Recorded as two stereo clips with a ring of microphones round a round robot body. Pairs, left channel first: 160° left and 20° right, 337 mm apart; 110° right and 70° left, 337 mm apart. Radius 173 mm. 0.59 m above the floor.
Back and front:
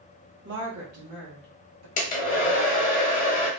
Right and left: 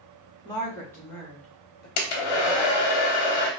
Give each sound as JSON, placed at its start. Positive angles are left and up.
{"t": 0.5, "sound": "a woman speaking", "azimuth_deg": -45, "distance_m": 0.9}
{"t": 2.0, "sound": "a hair dryer", "azimuth_deg": -135, "distance_m": 0.7}